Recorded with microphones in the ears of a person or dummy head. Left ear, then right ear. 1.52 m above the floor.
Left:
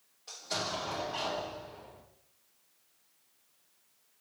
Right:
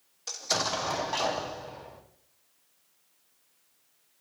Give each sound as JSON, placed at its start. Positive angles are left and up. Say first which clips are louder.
{"t": 0.3, "sound": "an explosion", "louder": "right 6 dB", "side_deg": -75, "distance_m": 0.5}